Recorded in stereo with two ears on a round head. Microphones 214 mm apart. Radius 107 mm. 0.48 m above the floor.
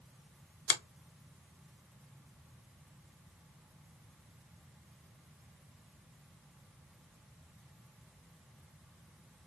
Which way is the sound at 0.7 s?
30° left (ahead or behind).